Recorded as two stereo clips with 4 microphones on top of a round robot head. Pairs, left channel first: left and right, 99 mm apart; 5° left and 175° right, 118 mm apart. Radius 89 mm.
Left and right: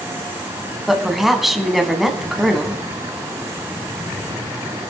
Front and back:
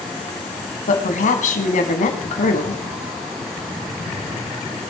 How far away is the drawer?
I don't hear a drawer.